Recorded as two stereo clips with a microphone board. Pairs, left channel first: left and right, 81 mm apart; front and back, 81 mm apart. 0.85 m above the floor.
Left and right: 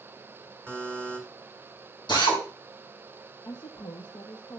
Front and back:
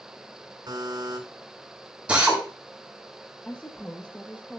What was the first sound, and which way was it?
A buzzer, 160° left.